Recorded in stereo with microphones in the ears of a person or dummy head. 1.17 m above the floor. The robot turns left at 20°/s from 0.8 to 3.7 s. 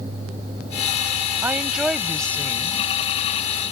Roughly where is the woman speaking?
Behind.